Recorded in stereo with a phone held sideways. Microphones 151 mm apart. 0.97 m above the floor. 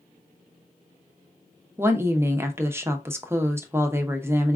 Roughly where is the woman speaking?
Centre.